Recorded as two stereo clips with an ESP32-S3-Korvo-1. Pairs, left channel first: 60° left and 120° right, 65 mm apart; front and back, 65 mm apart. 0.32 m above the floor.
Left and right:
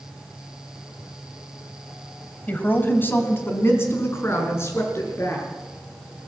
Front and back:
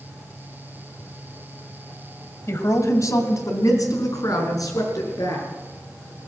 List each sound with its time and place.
2.5 s a woman speaking: 5° left, 2 m; by 5.5 s 15° left, 6 m